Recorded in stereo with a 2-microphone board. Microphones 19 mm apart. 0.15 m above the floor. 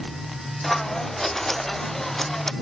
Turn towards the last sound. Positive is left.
turn(degrees=15)  # may be behind; listen again after turning